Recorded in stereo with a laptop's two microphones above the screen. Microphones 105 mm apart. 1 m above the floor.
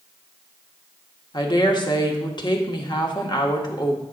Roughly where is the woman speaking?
Left.